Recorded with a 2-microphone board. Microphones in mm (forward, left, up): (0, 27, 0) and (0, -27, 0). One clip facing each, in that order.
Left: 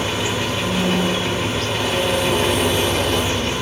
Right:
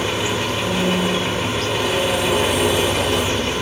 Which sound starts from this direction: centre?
An engine running, at 0.0 s.